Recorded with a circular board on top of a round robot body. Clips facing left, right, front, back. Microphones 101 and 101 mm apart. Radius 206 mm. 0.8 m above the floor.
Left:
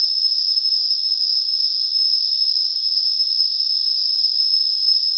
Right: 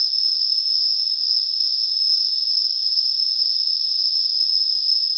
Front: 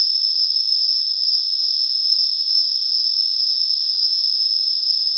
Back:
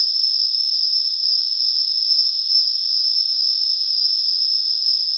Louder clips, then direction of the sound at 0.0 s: Left 2 dB, even; 70° left.